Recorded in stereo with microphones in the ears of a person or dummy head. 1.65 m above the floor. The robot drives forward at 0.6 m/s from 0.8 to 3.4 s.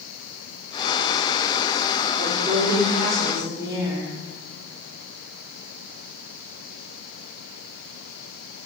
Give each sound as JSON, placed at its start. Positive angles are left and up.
{"t": 2.2, "sound": "a woman speaking", "side_deg": -35, "distance_m": 0.8}